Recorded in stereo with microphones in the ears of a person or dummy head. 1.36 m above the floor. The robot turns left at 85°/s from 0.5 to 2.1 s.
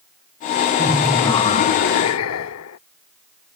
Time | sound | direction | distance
0.8 | laughter | 155° right | ?